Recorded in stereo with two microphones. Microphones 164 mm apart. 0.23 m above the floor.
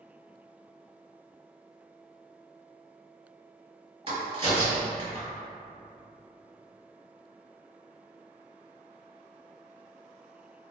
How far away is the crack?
About 1.8 m.